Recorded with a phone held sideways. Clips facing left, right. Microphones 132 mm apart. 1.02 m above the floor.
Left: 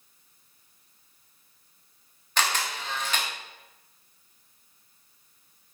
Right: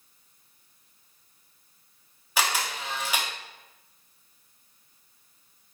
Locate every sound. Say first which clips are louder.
2.4 s a camera shutter: even; 10° right (ahead or behind), 0.8 m